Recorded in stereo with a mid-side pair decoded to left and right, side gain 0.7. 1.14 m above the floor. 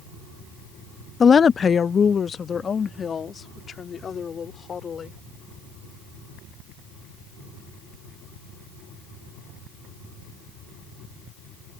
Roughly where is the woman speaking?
Ahead left.